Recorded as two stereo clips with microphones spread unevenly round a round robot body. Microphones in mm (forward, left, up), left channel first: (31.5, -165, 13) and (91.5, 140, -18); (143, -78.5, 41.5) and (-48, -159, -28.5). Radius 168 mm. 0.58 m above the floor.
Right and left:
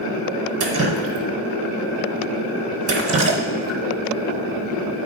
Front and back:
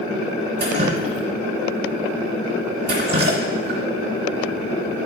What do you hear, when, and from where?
0.6 s dripping: 135° left, 0.7 m